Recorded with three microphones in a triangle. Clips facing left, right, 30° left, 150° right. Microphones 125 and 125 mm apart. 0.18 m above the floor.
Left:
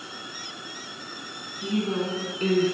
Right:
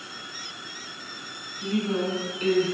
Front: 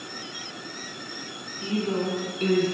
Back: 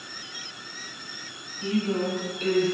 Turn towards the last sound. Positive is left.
turn(degrees=55)